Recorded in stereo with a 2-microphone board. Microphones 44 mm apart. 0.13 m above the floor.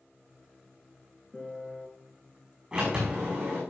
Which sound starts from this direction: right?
A sliding door, at 2.7 s.